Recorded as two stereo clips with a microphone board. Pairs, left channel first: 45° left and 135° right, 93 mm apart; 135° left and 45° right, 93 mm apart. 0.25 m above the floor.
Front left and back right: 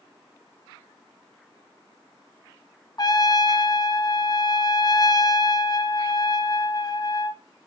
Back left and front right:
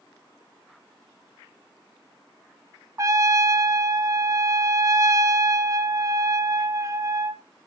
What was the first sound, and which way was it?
A trumpet, 10° left.